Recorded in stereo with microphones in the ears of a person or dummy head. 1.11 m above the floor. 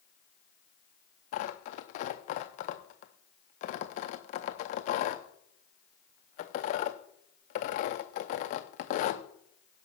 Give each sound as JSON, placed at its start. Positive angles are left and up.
{"t": 1.3, "sound": "tearing paper", "side_deg": 45, "distance_m": 0.6}